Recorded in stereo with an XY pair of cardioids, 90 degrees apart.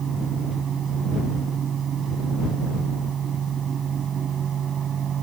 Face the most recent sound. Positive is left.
turn(degrees=-65)